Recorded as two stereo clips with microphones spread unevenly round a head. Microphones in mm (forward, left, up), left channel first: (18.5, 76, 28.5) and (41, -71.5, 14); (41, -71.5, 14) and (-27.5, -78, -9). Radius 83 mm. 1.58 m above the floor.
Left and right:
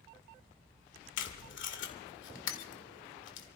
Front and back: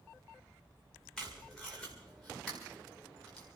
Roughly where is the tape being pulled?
Left.